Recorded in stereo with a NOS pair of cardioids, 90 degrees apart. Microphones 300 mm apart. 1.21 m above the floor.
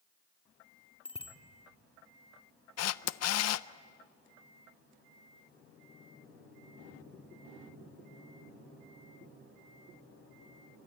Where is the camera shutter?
55° left, 0.6 m.